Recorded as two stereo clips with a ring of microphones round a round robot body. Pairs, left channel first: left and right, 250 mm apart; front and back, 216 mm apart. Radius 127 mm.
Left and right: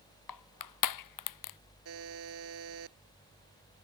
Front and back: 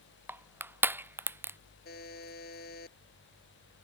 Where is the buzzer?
55° right.